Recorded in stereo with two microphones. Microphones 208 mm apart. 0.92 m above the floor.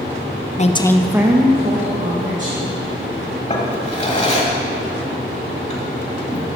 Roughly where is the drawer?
Left.